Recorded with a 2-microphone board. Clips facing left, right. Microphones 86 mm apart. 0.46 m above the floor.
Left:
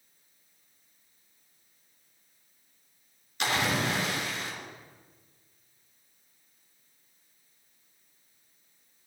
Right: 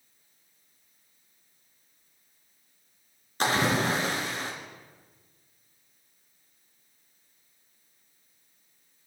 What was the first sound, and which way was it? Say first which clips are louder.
A splash: right 3 dB; 40° right (ahead or behind).